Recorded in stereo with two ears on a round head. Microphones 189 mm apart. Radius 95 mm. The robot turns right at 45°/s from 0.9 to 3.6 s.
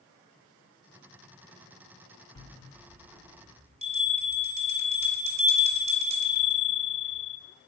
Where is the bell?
155° left, 2.0 m; by 7.4 s 145° right, 2.0 m.